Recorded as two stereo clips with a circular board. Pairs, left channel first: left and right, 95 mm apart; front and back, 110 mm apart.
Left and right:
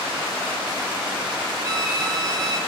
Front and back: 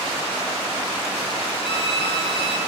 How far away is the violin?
About 5.5 m.